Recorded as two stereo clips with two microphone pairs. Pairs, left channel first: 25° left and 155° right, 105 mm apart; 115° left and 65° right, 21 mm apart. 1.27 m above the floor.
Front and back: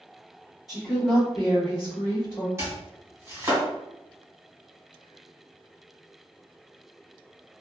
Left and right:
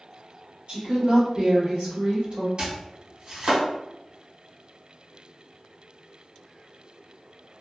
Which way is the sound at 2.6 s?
95° right.